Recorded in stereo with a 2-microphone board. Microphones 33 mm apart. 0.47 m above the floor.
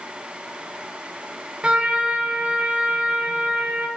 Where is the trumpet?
25° right (ahead or behind), 0.6 m.